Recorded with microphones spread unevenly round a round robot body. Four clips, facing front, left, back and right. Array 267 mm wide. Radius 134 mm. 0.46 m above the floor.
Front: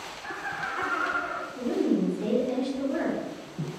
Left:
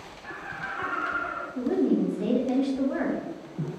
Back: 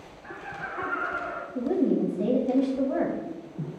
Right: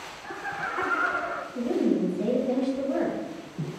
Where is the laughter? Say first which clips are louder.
Right 3 dB, front 3 dB; 60° right, 0.7 m; by 1.4 s 85° right, 1.4 m.